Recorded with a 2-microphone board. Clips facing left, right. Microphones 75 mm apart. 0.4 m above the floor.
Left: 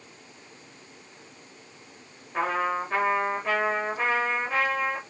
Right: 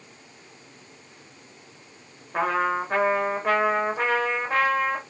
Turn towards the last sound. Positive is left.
turn(degrees=-60)  # may be behind; listen again after turning